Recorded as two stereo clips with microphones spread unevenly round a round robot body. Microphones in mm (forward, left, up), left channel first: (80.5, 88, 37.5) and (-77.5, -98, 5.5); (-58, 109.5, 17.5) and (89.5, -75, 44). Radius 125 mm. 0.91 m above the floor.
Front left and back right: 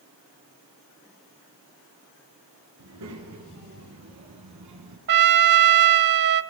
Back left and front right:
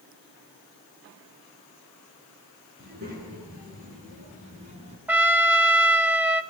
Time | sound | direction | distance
2.8 | a child speaking | 105° right | 9 m
5.1 | a trumpet | 120° right | 0.6 m